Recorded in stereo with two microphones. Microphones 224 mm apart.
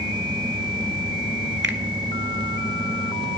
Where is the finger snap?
55° right (ahead or behind), 1.3 m.